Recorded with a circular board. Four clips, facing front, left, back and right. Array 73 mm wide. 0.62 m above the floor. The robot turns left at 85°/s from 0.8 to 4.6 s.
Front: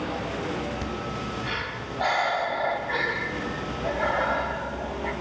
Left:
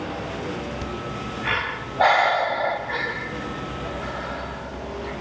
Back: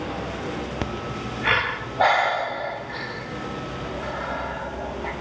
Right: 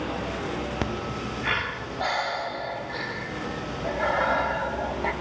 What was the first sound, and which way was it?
Breathing, 130° right.